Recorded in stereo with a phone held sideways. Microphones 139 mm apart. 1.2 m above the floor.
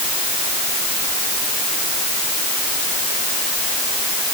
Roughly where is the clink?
I don't hear a clink.